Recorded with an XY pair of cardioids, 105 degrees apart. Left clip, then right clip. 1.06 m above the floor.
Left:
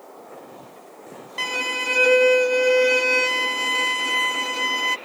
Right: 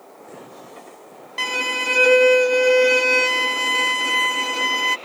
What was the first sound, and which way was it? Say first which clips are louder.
A violin: right 2 dB; 15° right.